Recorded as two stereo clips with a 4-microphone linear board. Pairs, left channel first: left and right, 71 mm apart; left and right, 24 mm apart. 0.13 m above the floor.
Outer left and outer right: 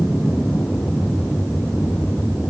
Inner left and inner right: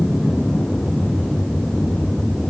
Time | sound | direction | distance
0.0 | an aircraft | 30° left (ahead or behind) | ?